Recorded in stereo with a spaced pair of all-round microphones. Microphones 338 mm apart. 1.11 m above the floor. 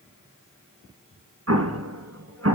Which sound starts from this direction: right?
An explosion, at 1.5 s.